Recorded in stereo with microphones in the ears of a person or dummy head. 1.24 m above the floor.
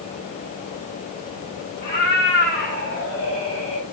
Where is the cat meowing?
55° left (ahead or behind), 7 m; by 3.8 s 45° left (ahead or behind), 4.5 m.